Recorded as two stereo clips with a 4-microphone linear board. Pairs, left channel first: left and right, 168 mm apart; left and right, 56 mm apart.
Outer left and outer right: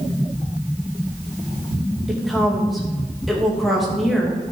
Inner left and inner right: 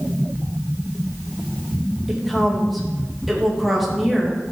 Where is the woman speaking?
Centre (ahead or behind), 2.5 m.